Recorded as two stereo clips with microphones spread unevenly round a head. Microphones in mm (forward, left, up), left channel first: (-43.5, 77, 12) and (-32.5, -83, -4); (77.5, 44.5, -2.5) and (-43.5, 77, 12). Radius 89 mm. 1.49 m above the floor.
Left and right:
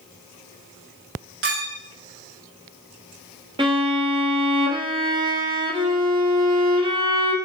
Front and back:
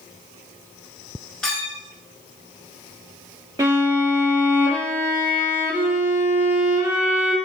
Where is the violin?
140° right, 1.3 m.